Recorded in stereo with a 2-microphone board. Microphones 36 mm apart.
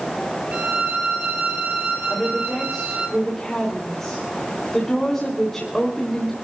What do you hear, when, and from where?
0.5 s a violin: 45° right (ahead or behind), 5.5 m
2.1 s a woman speaking: 5° left (ahead or behind), 3.5 m